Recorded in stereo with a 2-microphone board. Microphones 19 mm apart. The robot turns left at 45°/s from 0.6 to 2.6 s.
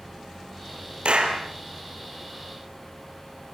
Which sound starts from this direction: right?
A clap, at 1.1 s.